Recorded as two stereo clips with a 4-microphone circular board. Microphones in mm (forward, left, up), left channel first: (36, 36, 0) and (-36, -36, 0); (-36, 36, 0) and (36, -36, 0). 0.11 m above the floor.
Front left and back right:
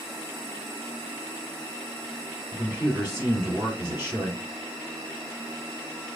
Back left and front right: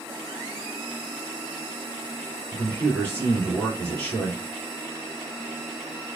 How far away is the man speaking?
About 1.8 m.